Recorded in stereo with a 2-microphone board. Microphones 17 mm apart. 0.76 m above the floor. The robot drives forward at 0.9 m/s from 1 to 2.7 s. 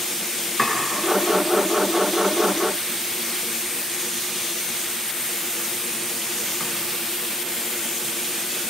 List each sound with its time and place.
0.6 s chopping: 20° left (ahead or behind), 5.5 m; by 6.7 s 25° left (ahead or behind), 4 m